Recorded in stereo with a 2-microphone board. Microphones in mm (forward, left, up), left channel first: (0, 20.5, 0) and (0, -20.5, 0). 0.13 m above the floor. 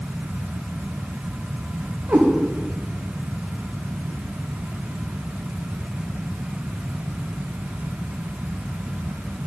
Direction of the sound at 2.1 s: 45° right (ahead or behind).